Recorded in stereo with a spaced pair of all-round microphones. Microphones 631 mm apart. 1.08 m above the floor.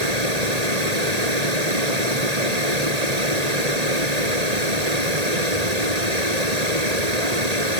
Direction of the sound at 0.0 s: 85° right.